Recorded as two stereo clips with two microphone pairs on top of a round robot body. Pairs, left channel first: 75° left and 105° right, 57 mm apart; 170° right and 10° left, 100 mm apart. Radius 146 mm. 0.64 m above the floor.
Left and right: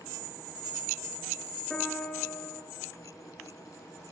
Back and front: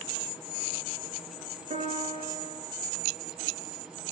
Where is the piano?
5° right, 4 m.